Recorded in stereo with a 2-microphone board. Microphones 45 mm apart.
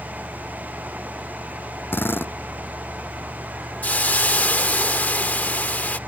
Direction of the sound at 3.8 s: 35° left (ahead or behind).